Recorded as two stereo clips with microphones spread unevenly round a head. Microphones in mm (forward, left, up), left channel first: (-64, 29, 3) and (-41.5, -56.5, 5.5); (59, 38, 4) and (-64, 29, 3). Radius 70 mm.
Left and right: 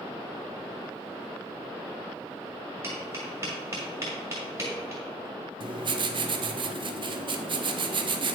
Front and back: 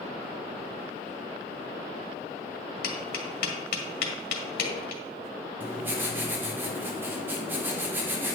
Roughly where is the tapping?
Ahead.